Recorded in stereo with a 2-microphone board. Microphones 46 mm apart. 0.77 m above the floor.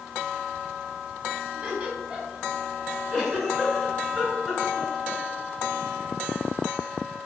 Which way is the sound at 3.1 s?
Centre (ahead or behind).